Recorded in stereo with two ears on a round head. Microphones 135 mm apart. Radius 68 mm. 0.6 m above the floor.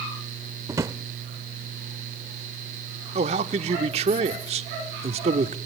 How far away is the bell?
I don't hear a bell.